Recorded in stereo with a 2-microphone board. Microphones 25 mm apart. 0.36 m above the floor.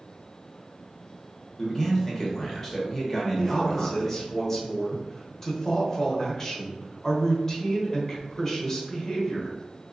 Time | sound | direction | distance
1.6 | a man speaking | 15° left (ahead or behind) | 0.9 m
3.4 | a man speaking | 20° left (ahead or behind) | 0.9 m